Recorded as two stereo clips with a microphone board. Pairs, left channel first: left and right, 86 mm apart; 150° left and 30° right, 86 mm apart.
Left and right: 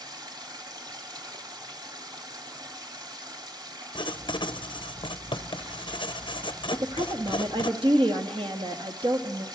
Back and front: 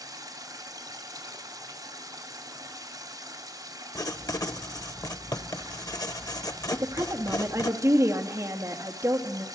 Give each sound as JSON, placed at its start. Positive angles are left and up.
{"t": 0.0, "sound": "running water", "azimuth_deg": -65, "distance_m": 1.9}
{"t": 4.0, "sound": "writing", "azimuth_deg": 110, "distance_m": 0.8}
{"t": 6.7, "sound": "a woman speaking", "azimuth_deg": -85, "distance_m": 1.8}